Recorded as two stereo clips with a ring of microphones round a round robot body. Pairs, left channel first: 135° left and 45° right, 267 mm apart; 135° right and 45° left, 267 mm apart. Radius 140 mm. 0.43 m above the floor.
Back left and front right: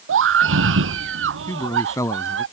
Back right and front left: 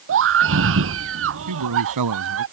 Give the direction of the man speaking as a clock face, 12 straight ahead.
10 o'clock.